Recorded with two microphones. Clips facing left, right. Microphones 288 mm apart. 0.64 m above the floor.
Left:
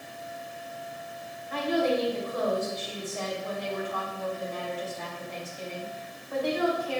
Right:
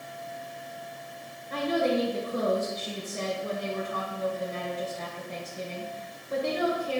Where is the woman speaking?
45° right (ahead or behind), 3 m.